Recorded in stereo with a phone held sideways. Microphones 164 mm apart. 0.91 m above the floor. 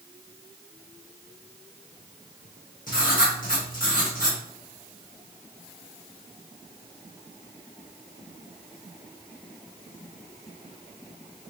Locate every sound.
2.9 s writing: 55° left (ahead or behind), 1.6 m